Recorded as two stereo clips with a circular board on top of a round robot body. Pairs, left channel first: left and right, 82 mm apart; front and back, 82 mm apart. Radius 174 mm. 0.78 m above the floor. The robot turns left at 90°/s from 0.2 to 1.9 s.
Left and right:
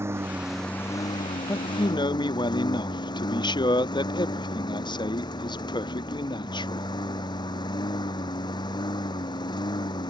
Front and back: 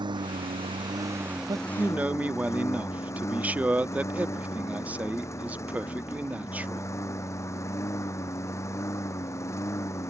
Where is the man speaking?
145° left; by 6.9 s 110° left.